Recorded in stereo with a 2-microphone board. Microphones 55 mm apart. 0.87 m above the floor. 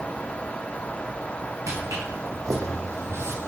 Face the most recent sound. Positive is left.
turn(degrees=-45)  # may be behind; listen again after turning